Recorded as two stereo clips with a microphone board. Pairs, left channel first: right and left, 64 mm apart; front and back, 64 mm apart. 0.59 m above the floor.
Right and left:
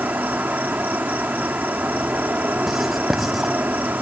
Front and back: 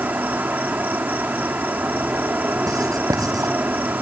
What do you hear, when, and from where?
0.0 s an insect: 135° left
2.7 s writing: 175° left